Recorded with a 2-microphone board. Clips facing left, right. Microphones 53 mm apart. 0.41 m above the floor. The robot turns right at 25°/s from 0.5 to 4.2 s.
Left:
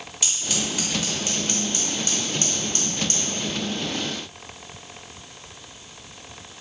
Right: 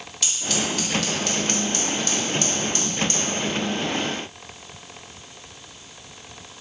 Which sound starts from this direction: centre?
Scissors, at 0.2 s.